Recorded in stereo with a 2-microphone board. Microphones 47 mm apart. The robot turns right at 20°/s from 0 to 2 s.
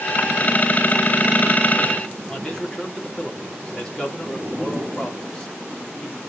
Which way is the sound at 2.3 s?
15° left (ahead or behind).